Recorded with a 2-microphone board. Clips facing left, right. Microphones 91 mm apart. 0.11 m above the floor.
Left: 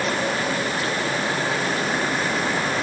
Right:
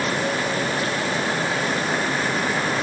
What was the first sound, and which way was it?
Only background noise.